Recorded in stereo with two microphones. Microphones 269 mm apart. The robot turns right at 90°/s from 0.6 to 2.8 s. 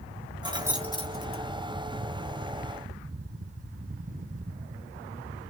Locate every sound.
0.4 s keys jangling: 15° right (ahead or behind), 1.0 m; by 1.4 s 60° left (ahead or behind), 1.0 m